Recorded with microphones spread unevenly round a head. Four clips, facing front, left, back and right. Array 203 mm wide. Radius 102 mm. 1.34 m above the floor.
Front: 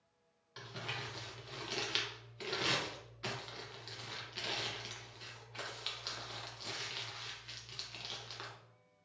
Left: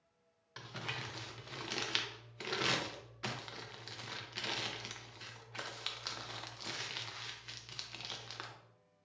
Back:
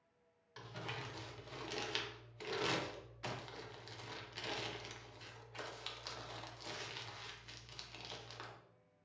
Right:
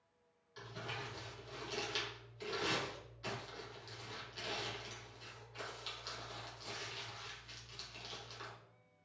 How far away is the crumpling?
About 0.8 m.